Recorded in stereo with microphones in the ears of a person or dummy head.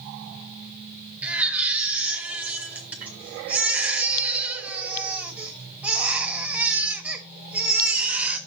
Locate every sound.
1.2 s a baby crying: 10° right (ahead or behind), 1.3 m